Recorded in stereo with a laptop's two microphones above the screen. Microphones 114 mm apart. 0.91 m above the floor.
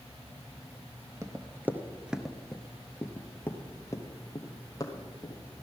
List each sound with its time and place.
1.2 s running footsteps: 30° right (ahead or behind), 0.9 m; by 5.3 s 35° left (ahead or behind), 2 m